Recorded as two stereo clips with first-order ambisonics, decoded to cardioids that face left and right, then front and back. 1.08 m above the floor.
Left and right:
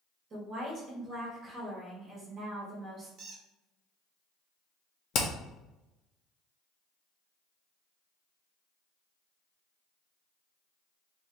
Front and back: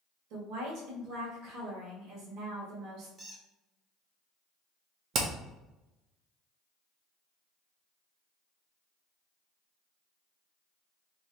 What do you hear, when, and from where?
0.3 s a woman speaking: 150° right, 1.5 m
3.2 s a squeak: 110° right, 0.8 m
5.1 s hammering: 135° left, 0.7 m